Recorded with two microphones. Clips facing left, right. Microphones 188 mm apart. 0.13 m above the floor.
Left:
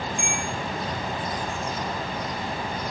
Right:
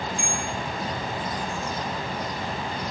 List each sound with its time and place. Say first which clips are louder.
0.2 s a bell: even; 15° left (ahead or behind), 5 m